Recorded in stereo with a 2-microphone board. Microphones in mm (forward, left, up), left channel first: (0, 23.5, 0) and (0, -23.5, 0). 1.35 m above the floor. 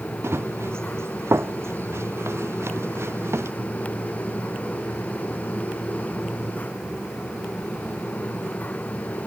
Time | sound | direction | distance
0.2 | running footsteps | 65° right (ahead or behind) | ?